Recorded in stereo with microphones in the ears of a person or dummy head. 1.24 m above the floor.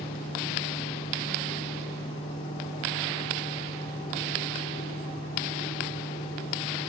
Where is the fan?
70° left (ahead or behind), 3.5 m.